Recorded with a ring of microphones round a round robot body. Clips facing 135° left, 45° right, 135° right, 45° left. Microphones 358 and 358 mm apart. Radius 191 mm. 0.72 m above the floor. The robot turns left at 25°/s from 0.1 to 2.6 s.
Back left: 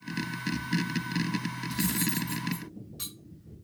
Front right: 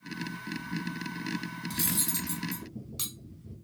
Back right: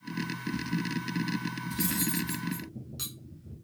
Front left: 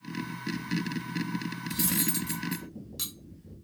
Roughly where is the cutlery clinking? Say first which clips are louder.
Back left 7 dB, even; ahead.